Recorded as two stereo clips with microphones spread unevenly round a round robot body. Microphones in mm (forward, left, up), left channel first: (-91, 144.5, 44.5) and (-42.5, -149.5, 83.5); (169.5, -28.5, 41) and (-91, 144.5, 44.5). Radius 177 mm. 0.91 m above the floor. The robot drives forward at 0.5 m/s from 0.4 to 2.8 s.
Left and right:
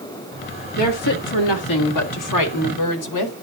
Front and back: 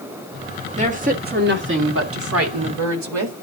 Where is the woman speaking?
75° left, 1.9 m; by 3.3 s 110° left, 1.9 m.